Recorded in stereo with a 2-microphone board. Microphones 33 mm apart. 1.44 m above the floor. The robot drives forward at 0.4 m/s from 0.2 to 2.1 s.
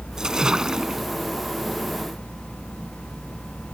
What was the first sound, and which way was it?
A splash, 15° right (ahead or behind).